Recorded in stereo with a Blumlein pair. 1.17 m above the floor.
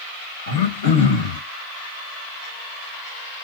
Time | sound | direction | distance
0.5 | throat clearing | 60° left | 1.1 m